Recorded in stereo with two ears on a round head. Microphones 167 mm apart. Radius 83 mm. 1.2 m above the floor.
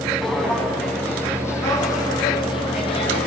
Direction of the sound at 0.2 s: Centre (ahead or behind).